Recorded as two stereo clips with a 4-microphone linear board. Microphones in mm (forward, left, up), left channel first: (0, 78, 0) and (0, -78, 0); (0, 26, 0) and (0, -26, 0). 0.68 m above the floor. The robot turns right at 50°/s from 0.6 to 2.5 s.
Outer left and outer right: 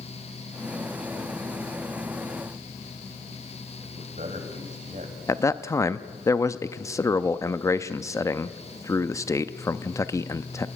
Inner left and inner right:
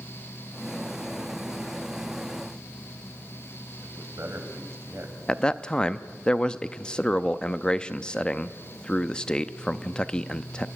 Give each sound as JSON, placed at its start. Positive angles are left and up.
{"t": 3.8, "sound": "a man speaking", "side_deg": -55, "distance_m": 3.5}
{"t": 5.3, "sound": "a man speaking", "side_deg": 20, "distance_m": 0.5}